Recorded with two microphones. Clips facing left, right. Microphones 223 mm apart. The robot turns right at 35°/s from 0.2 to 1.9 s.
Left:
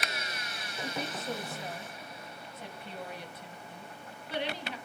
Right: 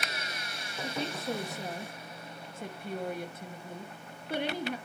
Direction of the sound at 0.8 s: 155° right.